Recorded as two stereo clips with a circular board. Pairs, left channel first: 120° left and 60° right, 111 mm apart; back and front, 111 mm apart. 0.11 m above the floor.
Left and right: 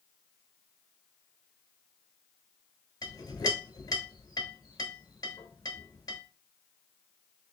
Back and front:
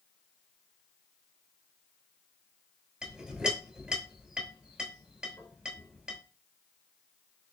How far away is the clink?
About 1.0 m.